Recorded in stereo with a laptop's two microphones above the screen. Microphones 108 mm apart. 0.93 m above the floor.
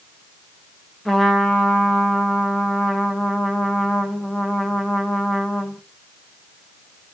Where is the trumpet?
Centre (ahead or behind), 1.0 m.